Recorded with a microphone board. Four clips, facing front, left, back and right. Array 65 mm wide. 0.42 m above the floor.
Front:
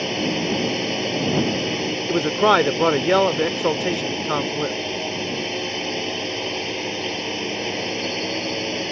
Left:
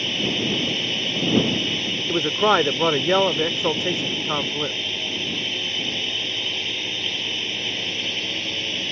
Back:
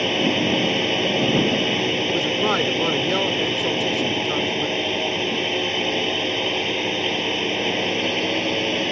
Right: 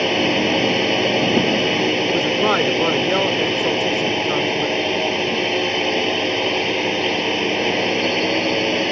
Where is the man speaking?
20° left.